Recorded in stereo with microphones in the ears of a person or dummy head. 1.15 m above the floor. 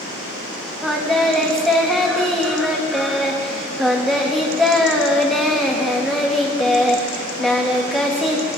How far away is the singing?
About 0.9 m.